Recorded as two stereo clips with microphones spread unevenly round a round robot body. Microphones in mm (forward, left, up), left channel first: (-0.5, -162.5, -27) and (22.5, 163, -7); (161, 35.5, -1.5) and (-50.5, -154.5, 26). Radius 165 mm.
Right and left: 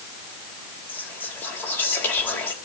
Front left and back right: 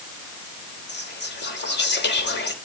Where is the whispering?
10° right, 3 m.